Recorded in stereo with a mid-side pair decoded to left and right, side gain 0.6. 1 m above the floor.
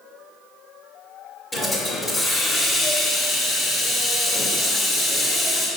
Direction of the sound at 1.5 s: 15° left.